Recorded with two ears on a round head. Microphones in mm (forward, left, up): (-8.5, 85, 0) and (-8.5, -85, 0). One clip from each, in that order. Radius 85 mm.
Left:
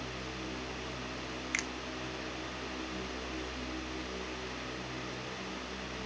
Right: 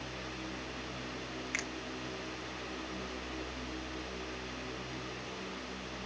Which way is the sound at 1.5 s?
10° left (ahead or behind).